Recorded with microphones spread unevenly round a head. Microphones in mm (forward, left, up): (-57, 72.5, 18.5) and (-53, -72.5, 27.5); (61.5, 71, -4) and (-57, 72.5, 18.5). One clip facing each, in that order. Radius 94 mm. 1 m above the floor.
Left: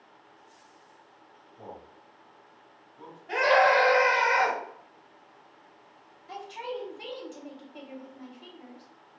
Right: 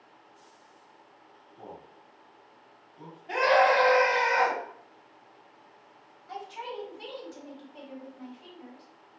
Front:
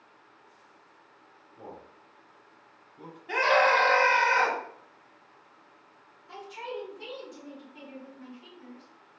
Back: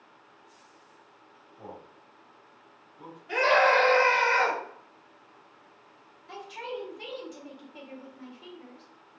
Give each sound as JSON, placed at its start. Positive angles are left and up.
{"t": 1.6, "sound": "a man speaking", "azimuth_deg": -20, "distance_m": 1.8}
{"t": 3.3, "sound": "a scream", "azimuth_deg": -20, "distance_m": 1.6}
{"t": 6.3, "sound": "a man speaking", "azimuth_deg": 155, "distance_m": 1.3}